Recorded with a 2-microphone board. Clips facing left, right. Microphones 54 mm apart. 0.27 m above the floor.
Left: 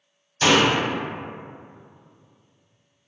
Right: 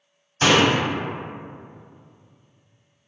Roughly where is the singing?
I don't hear singing.